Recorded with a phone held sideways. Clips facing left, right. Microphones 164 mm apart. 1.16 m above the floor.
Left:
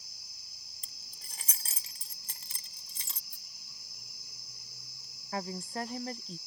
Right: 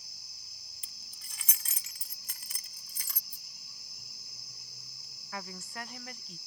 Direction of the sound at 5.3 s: 35° left (ahead or behind).